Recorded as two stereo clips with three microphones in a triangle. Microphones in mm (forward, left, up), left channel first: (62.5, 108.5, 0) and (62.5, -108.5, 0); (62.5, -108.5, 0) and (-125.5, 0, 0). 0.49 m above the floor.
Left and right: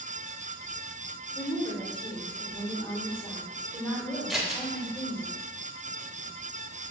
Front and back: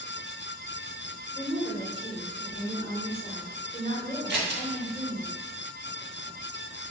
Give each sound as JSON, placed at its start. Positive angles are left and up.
{"t": 1.4, "sound": "a woman speaking", "azimuth_deg": 25, "distance_m": 1.4}
{"t": 4.3, "sound": "scissors", "azimuth_deg": 180, "distance_m": 0.9}